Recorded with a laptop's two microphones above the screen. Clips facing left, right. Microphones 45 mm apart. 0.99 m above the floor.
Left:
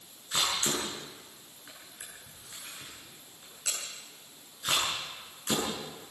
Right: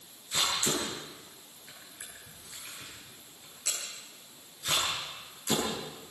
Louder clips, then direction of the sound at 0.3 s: Even; 45° left (ahead or behind).